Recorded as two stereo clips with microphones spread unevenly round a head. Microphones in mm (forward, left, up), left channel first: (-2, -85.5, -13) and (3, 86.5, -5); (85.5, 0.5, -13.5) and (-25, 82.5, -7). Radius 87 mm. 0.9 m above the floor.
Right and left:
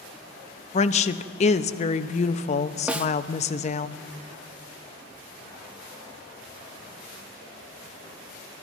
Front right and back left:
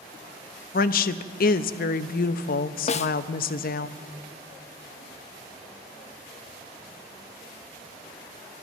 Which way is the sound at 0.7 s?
45° right.